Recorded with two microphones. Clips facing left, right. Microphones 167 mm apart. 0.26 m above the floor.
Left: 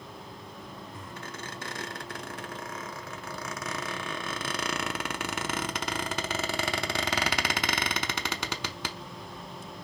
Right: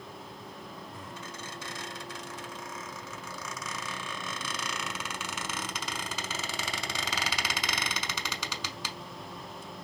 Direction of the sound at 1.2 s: 60° left (ahead or behind).